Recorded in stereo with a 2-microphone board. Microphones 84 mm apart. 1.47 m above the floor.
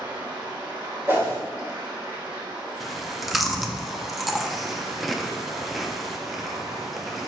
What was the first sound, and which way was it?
Running water, 60° right (ahead or behind).